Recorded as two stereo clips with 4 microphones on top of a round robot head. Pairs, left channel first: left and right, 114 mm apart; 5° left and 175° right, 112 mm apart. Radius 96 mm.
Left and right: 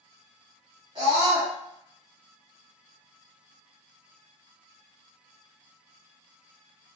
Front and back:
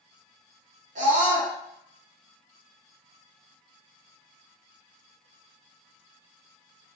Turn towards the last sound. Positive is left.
turn(degrees=-150)